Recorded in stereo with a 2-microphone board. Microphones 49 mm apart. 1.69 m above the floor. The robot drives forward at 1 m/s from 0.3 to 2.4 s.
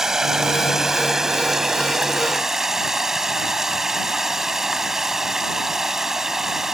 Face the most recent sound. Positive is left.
turn(degrees=-5)  # may be behind; listen again after turning